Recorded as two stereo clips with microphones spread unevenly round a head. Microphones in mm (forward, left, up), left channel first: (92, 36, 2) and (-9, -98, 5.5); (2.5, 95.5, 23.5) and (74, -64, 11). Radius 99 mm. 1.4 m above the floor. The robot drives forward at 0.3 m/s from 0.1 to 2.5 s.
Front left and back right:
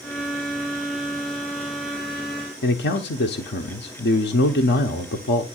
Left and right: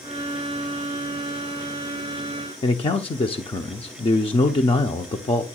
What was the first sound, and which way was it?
A man speaking, 55° left.